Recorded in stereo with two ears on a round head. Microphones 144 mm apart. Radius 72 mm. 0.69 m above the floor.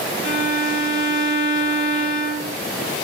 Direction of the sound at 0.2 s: 35° left (ahead or behind).